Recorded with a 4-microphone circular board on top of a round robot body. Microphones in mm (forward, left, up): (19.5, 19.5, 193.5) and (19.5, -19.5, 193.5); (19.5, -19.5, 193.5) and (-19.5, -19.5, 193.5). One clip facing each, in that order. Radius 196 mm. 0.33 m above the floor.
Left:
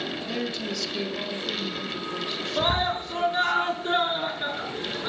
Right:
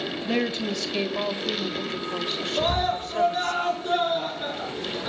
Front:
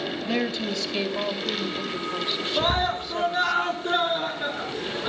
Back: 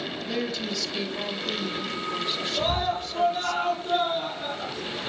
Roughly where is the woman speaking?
Ahead right.